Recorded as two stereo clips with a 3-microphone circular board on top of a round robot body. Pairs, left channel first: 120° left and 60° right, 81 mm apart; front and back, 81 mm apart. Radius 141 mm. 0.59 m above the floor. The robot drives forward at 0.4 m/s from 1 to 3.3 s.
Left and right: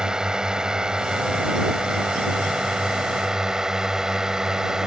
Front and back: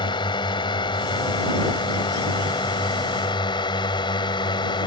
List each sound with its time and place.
0.0 s a drone: 20° left